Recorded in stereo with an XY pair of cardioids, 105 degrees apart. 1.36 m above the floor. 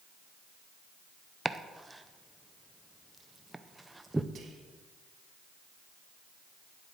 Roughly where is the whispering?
Ahead right.